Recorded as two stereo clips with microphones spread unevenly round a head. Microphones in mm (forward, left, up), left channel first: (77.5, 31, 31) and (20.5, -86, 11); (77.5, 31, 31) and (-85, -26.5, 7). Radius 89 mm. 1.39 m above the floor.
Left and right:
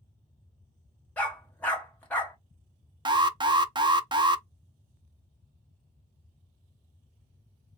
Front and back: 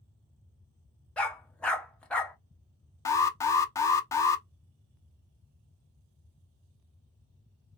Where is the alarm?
55° right, 0.5 m.